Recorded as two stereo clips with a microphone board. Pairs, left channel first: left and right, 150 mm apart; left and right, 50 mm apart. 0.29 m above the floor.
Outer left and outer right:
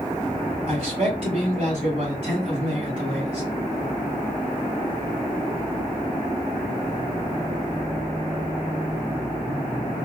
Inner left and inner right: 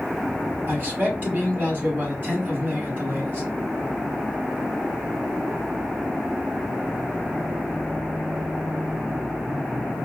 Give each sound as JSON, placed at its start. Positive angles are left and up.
{"t": 0.7, "sound": "a man speaking", "side_deg": -45, "distance_m": 3.5}